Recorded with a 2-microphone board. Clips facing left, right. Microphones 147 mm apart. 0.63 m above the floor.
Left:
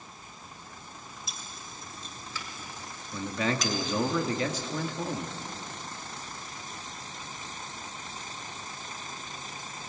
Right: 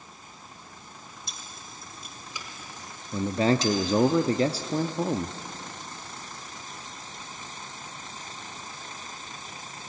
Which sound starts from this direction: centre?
Keys jangling, at 1.3 s.